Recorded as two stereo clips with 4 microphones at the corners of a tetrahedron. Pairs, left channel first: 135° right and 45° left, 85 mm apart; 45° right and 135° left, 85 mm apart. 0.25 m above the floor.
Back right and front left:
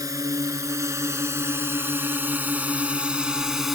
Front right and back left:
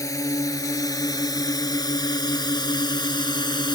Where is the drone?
Straight ahead; by 3.8 s 40° right.